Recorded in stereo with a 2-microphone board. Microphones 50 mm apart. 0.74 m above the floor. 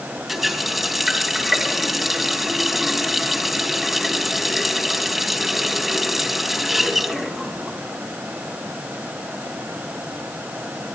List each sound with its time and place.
0.3 s a running tap: 5° right (ahead or behind), 3 m